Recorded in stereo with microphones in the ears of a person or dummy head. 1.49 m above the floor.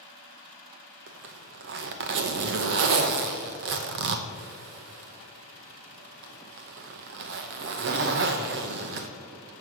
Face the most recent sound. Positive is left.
turn(degrees=-45)  # may be behind; listen again after turning